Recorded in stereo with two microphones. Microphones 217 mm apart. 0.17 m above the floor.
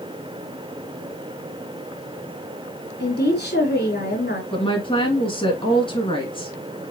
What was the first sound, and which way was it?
A woman speaking, 45° left (ahead or behind).